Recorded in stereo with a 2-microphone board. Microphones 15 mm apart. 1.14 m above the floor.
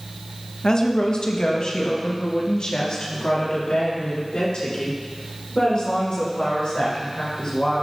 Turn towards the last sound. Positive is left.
turn(degrees=85)